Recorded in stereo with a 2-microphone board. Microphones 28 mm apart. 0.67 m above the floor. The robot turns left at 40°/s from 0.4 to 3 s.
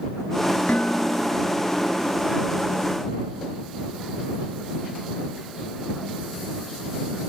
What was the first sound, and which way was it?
Dishes clattering, 85° left.